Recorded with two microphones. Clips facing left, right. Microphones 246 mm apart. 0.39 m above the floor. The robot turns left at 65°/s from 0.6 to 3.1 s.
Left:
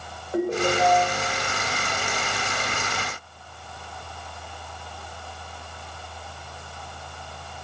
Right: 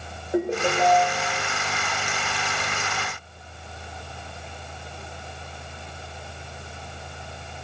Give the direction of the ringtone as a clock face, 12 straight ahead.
1 o'clock.